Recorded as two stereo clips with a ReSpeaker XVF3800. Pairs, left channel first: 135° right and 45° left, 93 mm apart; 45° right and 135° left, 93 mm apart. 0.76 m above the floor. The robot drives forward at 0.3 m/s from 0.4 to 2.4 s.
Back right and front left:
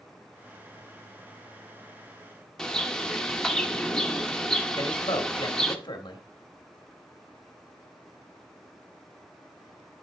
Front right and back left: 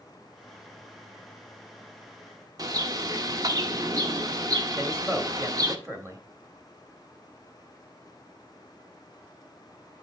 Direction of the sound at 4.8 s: 165° right.